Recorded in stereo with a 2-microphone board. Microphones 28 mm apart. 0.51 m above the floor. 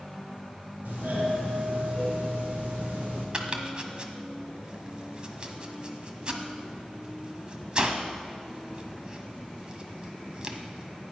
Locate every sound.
0.8 s a doorbell: 70° right (ahead or behind), 5 m
3.3 s chopping: 30° right (ahead or behind), 1.3 m